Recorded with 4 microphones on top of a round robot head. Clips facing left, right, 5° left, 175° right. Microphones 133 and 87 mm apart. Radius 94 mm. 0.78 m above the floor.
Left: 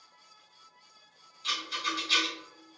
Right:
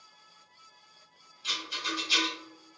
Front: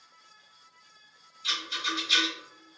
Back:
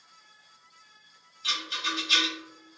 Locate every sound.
1.4 s a rattle: 165° right, 1.6 m